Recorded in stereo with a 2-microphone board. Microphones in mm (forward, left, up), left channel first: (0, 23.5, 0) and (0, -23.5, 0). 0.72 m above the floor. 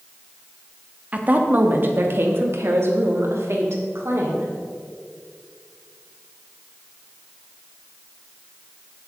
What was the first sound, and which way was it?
A woman speaking, 30° right (ahead or behind).